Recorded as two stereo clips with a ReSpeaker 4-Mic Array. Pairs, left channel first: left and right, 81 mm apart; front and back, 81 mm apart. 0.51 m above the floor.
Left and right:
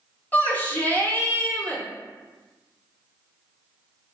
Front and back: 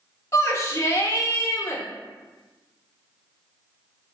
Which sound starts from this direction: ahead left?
A shout, at 0.3 s.